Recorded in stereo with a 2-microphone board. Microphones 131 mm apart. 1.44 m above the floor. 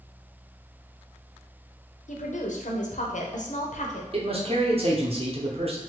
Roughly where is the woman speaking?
Left.